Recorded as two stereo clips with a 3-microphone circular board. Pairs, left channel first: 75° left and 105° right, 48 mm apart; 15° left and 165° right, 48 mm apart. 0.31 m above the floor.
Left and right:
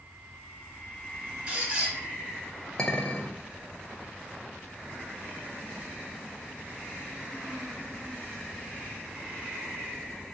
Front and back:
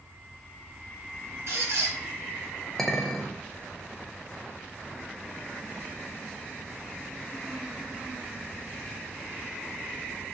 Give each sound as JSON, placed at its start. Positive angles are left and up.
{"t": 1.5, "sound": "a squeak", "azimuth_deg": -170, "distance_m": 1.4}
{"t": 2.8, "sound": "a clink", "azimuth_deg": 85, "distance_m": 0.6}